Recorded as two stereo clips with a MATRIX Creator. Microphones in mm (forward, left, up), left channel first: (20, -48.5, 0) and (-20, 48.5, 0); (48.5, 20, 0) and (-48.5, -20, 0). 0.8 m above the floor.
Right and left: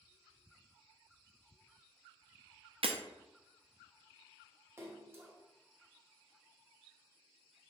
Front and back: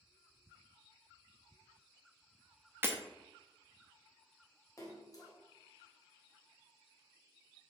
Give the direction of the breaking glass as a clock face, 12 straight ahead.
7 o'clock.